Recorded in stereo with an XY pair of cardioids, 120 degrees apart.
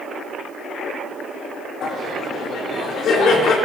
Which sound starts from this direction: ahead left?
Laughter, at 1.8 s.